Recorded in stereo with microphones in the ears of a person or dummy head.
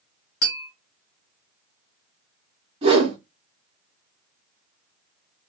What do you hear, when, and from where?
0.4 s tapping: 70° left (ahead or behind), 1.9 m
2.8 s a whoosh: 30° right (ahead or behind), 1.1 m